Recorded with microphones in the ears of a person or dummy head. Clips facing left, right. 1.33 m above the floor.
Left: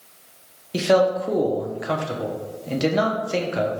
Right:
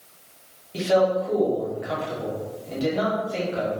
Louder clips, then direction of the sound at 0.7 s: Left 2 dB; 65° left (ahead or behind).